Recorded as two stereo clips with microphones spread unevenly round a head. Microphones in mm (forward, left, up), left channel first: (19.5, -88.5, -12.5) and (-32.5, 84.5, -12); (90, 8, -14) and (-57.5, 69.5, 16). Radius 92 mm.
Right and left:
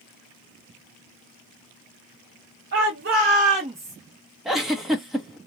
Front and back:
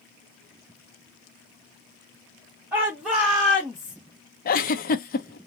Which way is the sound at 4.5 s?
20° left.